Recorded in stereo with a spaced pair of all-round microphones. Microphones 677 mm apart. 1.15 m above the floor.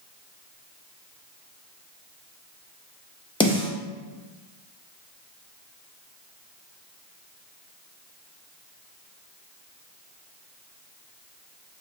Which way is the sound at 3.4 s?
10° left (ahead or behind).